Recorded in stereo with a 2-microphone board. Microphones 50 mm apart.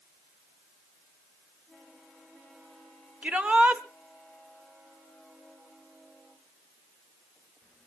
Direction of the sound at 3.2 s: 25° right (ahead or behind).